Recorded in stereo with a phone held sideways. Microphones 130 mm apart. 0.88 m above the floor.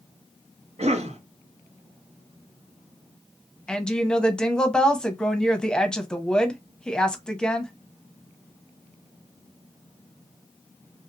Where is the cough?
55° right (ahead or behind), 0.9 m.